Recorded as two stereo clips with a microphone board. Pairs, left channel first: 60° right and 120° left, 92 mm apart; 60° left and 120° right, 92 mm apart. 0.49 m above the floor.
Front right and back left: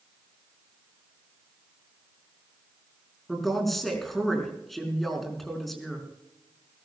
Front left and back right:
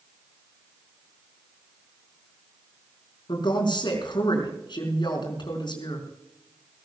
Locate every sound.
3.3 s a woman speaking: 30° left, 4.5 m